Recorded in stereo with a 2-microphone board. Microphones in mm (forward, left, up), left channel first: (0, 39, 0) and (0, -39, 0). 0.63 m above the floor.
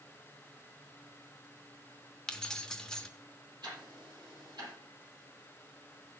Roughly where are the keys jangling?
Centre.